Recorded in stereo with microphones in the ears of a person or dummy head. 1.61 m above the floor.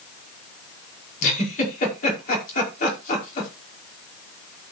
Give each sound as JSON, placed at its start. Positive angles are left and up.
{"t": 1.2, "sound": "a giggle", "side_deg": 45, "distance_m": 5.0}